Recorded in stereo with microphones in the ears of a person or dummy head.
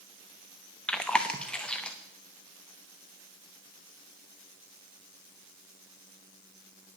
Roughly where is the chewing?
Centre.